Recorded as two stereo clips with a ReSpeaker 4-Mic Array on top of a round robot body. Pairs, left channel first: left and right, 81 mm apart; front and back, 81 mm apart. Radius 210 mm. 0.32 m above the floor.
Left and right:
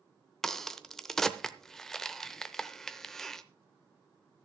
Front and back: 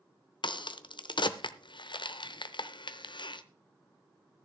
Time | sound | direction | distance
0.4 | a crack | 5° left | 0.9 m